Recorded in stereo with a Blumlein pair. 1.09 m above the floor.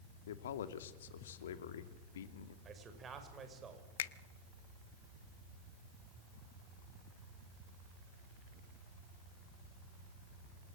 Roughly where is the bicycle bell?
No bicycle bell in this recording.